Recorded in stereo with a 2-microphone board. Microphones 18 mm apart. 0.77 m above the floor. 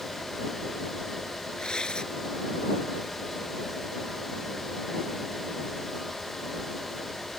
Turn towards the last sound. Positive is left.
turn(degrees=50)  # may be behind; listen again after turning